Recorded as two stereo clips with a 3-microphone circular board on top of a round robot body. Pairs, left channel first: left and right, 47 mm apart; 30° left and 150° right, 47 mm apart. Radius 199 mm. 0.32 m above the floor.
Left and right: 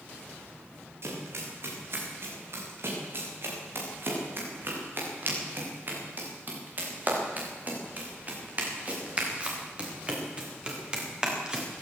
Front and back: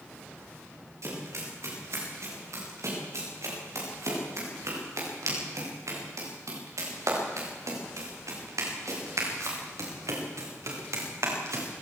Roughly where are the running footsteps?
Behind right.